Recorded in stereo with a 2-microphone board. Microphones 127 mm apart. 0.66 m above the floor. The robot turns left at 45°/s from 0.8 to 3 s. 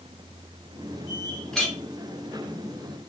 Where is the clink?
5° left (ahead or behind), 0.6 m; by 1.8 s centre (ahead or behind), 0.6 m.